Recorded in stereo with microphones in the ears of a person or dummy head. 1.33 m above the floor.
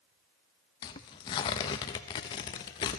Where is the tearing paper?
25° left (ahead or behind), 0.6 m.